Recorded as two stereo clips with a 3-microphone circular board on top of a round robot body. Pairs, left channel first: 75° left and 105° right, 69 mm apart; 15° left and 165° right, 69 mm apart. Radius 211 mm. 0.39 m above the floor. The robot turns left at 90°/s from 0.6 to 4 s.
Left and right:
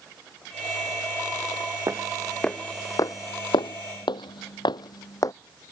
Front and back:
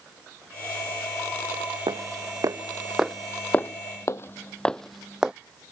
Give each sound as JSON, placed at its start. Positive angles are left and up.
{"t": 1.9, "sound": "footsteps", "azimuth_deg": -160}